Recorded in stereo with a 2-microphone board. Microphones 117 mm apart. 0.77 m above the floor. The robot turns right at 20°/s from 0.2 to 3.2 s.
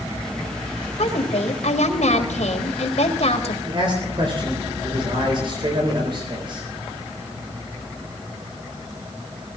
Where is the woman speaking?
75° left, 3 m; by 3.5 s 120° left, 3 m.